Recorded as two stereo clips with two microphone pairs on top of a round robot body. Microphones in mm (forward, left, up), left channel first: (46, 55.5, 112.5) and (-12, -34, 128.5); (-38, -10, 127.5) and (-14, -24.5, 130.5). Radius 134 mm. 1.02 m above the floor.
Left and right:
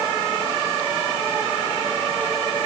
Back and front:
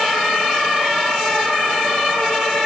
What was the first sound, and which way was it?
Only background noise.